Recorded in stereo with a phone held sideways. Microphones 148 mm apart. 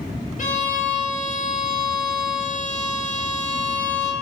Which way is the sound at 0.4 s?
60° left (ahead or behind).